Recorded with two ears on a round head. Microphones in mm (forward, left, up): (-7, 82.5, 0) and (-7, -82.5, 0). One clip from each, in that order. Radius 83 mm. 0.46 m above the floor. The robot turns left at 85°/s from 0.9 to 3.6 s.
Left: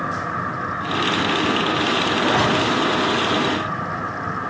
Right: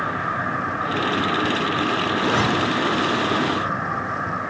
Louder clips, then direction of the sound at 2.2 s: Left 2 dB; 25° right (ahead or behind).